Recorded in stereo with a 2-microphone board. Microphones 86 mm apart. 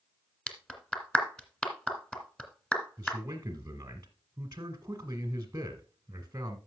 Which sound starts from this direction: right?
A man speaking, at 3.0 s.